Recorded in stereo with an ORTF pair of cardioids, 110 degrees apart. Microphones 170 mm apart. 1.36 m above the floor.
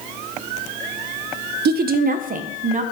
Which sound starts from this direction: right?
A woman speaking, at 1.6 s.